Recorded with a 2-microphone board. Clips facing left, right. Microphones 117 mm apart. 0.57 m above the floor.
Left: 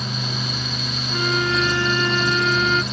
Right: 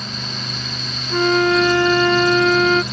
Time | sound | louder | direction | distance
1.1 | a flute | right 8 dB | 70° right (ahead or behind) | ?